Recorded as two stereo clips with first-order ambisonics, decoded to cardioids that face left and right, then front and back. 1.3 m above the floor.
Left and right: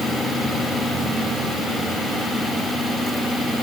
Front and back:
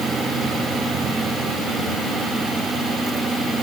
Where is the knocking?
I don't hear knocking.